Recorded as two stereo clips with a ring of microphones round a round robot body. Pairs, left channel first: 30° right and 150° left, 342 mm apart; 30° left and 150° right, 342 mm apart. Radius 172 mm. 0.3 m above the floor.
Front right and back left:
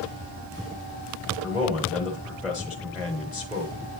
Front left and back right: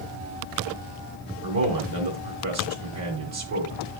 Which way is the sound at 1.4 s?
125° right.